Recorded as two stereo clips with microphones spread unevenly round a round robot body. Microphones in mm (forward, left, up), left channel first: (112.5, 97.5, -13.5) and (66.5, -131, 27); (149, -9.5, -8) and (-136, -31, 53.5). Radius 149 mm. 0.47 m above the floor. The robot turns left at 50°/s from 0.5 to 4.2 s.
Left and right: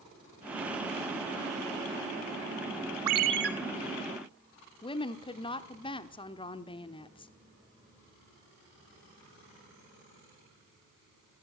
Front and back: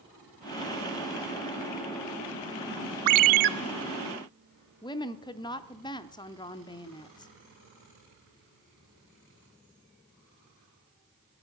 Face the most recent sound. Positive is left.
turn(degrees=45)